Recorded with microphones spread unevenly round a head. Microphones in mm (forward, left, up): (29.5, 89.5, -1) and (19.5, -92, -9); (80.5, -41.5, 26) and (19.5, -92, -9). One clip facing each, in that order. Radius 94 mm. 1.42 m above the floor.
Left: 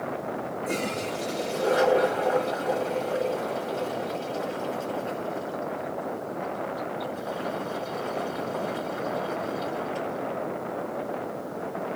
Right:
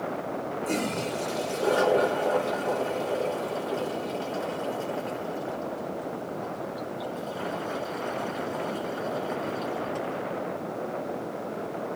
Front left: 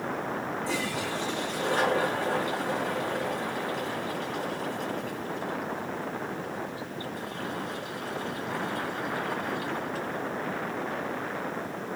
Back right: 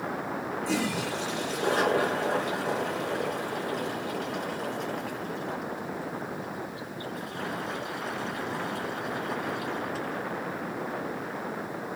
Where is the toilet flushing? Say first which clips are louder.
Right 1 dB, back right 2 dB; 155° right, 2.5 m.